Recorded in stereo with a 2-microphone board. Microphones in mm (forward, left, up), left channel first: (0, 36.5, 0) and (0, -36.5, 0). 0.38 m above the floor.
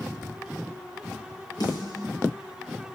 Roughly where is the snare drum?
Left.